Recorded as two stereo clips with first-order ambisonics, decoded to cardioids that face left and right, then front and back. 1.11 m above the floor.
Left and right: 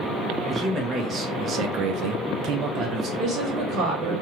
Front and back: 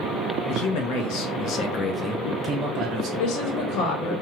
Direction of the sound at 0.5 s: 15° right.